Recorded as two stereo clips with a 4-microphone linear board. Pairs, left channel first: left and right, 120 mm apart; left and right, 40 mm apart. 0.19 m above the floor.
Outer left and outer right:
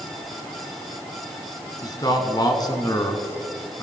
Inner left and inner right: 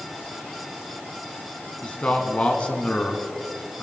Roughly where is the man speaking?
Left.